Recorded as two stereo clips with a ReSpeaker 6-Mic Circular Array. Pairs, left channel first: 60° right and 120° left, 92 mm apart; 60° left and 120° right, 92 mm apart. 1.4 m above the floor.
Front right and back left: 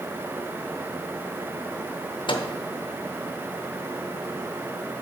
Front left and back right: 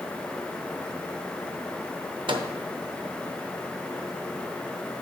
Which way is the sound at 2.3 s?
85° right.